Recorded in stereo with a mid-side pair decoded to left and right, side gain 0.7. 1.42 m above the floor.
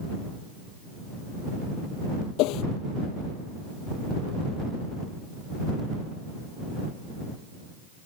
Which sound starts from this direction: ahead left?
A whoosh, at 2.4 s.